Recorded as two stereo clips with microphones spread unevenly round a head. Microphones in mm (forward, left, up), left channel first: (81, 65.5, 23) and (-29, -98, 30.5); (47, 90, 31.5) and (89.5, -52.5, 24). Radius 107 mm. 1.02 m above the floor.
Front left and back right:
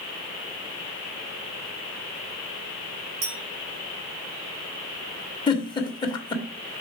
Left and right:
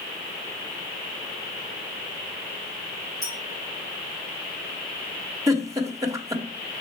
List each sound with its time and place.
3.2 s a clink: 165° right, 2.5 m
5.5 s a giggle: 10° right, 1.4 m